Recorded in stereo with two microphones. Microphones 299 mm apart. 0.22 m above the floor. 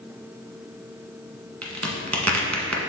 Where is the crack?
60° right (ahead or behind), 1.2 m.